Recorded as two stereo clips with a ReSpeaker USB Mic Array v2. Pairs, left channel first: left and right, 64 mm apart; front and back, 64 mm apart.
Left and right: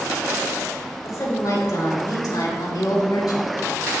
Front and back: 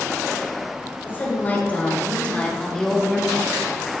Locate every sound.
1.0 s a woman speaking: 60° left, 4 m; by 3.5 s 95° left, 2.5 m